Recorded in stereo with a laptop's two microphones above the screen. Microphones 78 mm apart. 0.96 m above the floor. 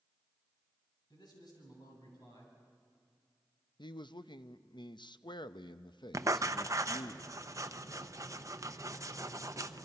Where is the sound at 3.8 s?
70° left (ahead or behind), 0.6 m.